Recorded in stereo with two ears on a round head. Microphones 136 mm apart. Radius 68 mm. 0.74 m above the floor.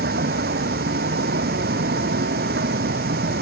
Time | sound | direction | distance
0.0 | a vehicle | 70° right (ahead or behind) | ?